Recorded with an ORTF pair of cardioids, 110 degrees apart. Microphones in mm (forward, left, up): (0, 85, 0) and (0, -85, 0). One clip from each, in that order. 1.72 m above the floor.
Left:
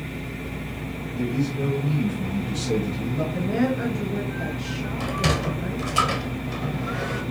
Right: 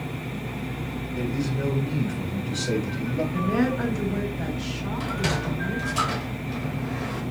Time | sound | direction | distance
1.1 | a man speaking | 15° right | 1.9 m
3.3 | a woman speaking | 20° right | 2.5 m
5.0 | a sliding door | 20° left | 1.2 m